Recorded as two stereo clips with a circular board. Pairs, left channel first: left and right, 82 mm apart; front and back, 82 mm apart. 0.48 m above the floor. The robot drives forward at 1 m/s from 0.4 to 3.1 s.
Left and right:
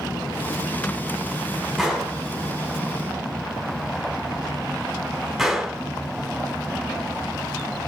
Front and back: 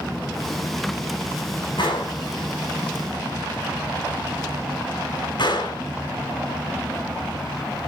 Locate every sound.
1.8 s a gunshot: 5° right, 4 m